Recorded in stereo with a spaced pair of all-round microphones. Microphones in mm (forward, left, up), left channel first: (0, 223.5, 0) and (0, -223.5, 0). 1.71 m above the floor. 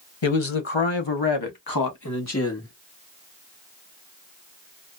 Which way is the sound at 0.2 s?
75° left (ahead or behind).